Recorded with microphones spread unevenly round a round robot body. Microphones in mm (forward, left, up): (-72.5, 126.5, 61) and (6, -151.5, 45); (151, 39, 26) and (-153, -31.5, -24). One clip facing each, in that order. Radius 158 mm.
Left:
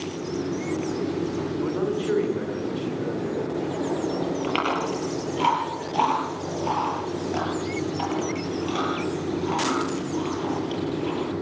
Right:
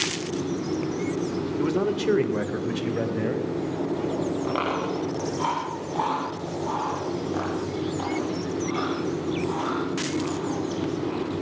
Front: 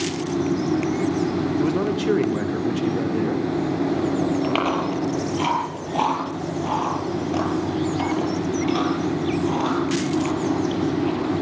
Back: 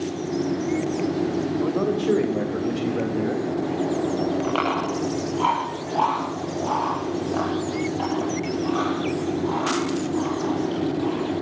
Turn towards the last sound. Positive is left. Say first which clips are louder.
# even, front 2 dB
turn(degrees=55)